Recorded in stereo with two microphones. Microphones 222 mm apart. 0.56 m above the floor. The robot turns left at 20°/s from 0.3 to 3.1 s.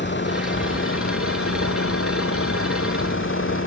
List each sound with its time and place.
0.0 s a vehicle: 125° left; by 3.7 s 70° left